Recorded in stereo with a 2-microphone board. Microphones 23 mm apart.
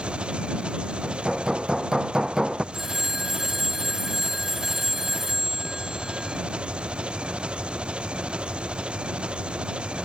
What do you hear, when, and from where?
0.0 s an engine running: 55° right (ahead or behind)
1.0 s hammering: 25° right (ahead or behind)
2.7 s a phone ringing: 15° right (ahead or behind)